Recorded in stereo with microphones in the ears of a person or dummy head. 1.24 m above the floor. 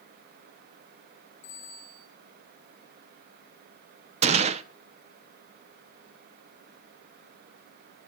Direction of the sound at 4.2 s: 40° right (ahead or behind).